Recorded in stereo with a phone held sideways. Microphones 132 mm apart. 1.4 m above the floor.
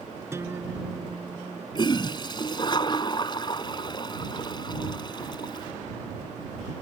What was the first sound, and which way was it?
A guitar, 20° right (ahead or behind).